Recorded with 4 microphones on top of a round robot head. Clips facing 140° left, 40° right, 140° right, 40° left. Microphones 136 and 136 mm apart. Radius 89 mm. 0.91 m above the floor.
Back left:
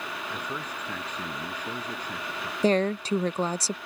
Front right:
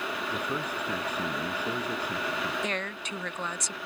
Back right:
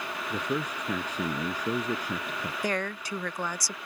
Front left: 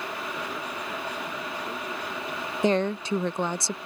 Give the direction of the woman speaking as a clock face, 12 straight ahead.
9 o'clock.